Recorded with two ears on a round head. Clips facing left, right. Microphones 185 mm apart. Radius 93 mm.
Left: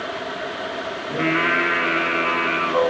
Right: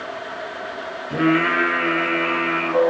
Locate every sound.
1.1 s singing: 5° right (ahead or behind), 1.2 m